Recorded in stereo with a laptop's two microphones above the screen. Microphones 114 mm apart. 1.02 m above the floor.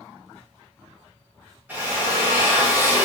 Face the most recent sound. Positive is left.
turn(degrees=-15)  # may be behind; listen again after turning